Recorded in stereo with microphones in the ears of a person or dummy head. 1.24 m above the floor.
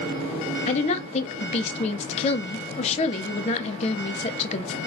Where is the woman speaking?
35° left (ahead or behind), 0.6 m.